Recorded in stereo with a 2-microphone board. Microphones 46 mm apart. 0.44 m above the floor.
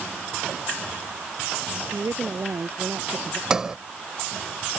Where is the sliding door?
15° right (ahead or behind).